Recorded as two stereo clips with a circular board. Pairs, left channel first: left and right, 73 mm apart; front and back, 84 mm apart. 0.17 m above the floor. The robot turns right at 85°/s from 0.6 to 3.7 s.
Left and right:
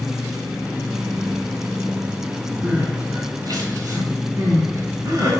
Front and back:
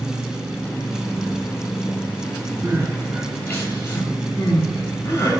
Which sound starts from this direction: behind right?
Crying, at 2.6 s.